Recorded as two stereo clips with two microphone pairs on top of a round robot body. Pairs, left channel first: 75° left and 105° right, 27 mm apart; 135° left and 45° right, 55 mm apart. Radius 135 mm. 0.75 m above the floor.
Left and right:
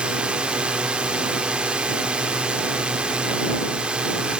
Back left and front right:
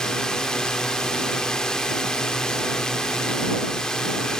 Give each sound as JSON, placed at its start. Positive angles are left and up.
{"t": 0.0, "sound": "a drone", "azimuth_deg": -145}